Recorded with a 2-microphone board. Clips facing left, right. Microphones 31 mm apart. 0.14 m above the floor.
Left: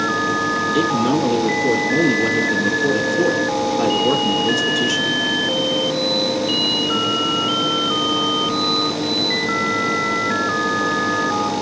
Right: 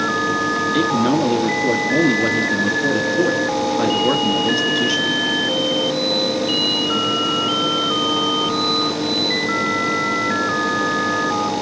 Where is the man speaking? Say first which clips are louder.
Right 1 dB; 40° right (ahead or behind), 1.8 m.